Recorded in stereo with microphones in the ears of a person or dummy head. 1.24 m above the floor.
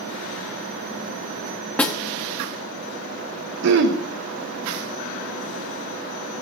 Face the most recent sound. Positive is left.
turn(degrees=-70)  # may be behind; listen again after turning